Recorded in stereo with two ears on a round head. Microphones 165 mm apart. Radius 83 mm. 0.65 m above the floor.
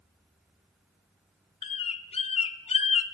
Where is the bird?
30° left (ahead or behind), 0.5 m.